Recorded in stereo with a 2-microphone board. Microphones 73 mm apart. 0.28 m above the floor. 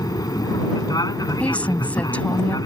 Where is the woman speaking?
20° left (ahead or behind).